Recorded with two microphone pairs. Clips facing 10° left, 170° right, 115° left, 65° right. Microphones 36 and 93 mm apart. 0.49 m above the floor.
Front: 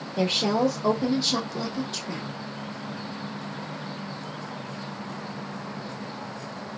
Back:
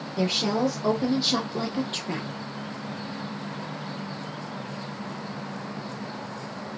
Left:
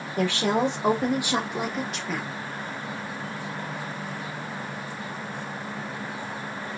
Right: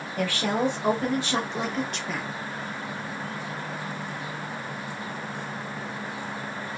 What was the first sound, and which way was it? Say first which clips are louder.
A woman speaking: front 2 dB, left 2 dB; 55° left.